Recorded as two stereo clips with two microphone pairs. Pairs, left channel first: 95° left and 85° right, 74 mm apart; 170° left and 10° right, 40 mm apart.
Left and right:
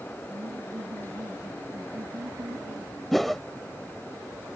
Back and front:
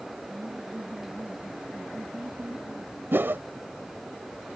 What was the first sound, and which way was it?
Laughter, 65° right.